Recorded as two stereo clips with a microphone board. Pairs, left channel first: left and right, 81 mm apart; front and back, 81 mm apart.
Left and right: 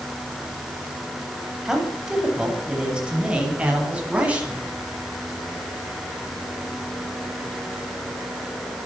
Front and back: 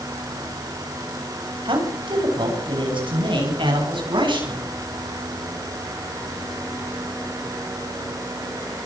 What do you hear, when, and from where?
1.6 s a man speaking: 175° right, 8.5 m; by 4.7 s 165° right, 12.5 m